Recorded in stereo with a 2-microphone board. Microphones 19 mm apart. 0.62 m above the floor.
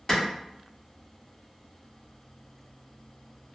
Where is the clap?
35° left (ahead or behind), 1.3 m.